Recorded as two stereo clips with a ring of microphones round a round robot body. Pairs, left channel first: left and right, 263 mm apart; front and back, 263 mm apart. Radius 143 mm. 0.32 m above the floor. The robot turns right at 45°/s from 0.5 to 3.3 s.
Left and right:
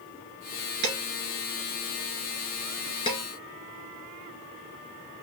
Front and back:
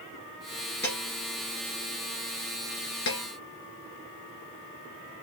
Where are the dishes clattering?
85° right, 3 m; by 3.2 s 25° left, 3 m.